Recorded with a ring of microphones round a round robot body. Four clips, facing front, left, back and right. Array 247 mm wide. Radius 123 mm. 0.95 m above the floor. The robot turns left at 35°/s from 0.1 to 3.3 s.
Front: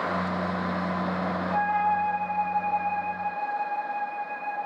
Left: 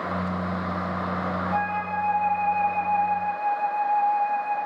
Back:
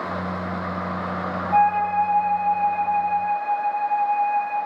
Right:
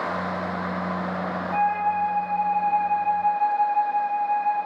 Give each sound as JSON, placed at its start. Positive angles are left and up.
{"t": 1.5, "sound": "a flute", "azimuth_deg": 165, "distance_m": 5.0}